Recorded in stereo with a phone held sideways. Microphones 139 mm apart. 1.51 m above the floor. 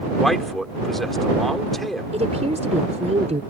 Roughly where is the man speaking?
Centre.